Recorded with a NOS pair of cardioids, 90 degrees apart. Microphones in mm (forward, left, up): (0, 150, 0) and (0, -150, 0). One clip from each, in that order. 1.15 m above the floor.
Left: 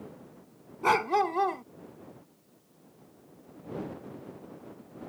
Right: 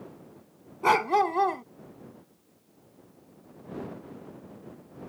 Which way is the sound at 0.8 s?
15° right.